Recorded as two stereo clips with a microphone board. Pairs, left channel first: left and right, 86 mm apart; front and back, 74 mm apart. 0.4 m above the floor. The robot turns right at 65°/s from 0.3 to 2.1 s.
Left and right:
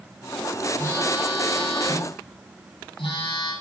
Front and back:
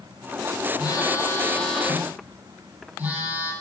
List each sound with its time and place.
0.8 s a phone buzzing: 25° left, 9.5 m; by 3.5 s 110° left, 9.5 m